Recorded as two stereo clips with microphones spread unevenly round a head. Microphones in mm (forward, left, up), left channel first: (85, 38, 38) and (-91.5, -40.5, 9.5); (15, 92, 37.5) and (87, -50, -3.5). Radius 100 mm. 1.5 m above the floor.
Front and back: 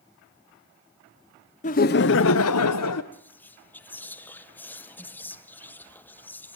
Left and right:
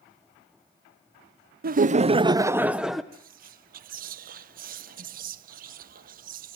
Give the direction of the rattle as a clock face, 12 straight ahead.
I don't hear a rattle.